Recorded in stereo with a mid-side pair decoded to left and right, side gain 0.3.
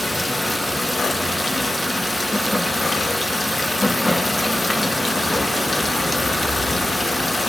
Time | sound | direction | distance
0.0 | running water | 20° left | 1.8 m